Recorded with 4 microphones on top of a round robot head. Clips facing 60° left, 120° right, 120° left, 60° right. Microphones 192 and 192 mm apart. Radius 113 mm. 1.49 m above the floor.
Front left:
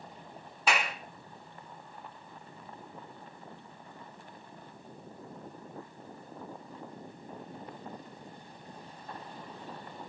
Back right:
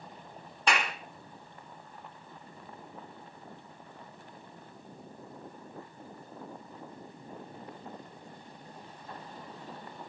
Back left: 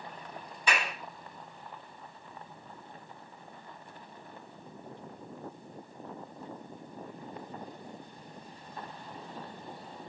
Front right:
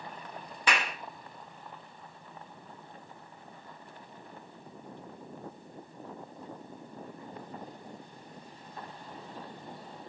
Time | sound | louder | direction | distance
0.7 | a clap | even, front right 1 dB | 30° right | 2.5 m